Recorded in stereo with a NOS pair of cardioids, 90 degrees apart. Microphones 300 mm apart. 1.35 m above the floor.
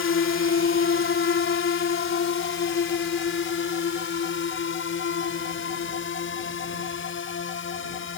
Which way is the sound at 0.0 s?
45° left.